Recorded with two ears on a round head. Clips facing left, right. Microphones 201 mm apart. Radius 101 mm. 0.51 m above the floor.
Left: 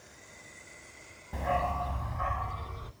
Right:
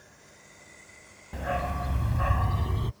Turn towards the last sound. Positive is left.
turn(degrees=-70)  # may be behind; listen again after turning